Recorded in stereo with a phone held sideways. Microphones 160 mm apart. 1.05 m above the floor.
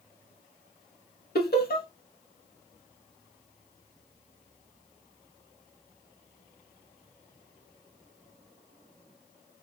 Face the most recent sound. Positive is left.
turn(degrees=70)  # may be behind; listen again after turning